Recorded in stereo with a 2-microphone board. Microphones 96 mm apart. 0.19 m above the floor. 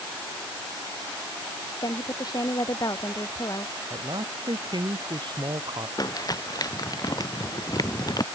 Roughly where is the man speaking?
Right.